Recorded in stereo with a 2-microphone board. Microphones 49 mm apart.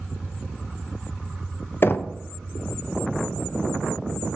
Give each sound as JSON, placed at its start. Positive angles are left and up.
{"t": 1.8, "sound": "knocking", "side_deg": 50, "distance_m": 0.5}